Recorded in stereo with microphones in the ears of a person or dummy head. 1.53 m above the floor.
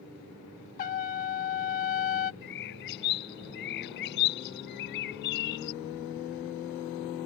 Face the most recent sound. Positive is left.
turn(degrees=60)  # may be behind; listen again after turning